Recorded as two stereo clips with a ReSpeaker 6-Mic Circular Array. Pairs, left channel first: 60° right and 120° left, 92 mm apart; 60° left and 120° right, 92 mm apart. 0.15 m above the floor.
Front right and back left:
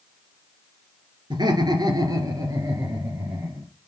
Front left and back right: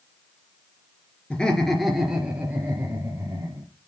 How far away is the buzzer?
I don't hear a buzzer.